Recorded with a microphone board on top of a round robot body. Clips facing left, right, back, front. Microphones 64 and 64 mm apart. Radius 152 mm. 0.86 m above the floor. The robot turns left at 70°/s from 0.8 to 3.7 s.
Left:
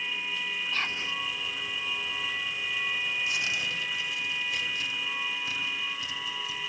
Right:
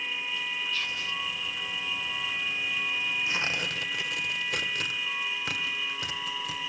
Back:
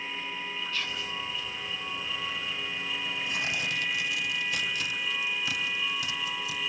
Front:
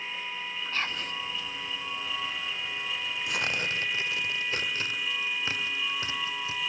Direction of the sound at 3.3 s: 25° right.